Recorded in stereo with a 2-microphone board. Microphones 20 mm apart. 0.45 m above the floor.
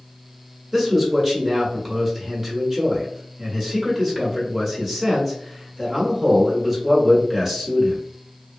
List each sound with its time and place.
0.7 s a man speaking: 10° right (ahead or behind), 1.3 m